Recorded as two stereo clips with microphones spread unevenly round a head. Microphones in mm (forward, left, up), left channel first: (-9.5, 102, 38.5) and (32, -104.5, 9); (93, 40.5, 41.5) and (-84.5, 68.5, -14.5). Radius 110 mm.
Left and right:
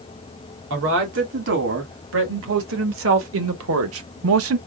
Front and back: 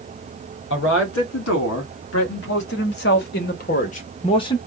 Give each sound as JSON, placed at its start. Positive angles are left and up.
{"t": 0.7, "sound": "a man speaking", "azimuth_deg": -45, "distance_m": 2.5}